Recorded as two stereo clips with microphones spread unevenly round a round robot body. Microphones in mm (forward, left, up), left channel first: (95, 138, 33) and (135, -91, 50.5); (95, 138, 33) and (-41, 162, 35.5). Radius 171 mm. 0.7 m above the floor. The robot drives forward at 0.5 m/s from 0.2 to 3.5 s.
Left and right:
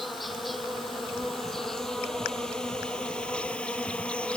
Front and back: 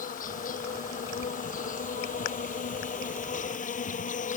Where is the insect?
10° left; by 4.4 s 15° left.